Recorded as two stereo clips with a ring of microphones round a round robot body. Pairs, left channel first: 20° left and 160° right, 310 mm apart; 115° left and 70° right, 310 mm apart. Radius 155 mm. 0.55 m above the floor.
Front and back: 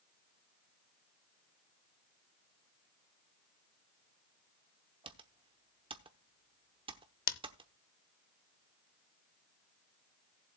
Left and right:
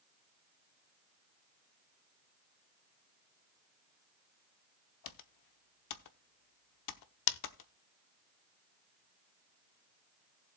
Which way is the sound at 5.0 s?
130° left.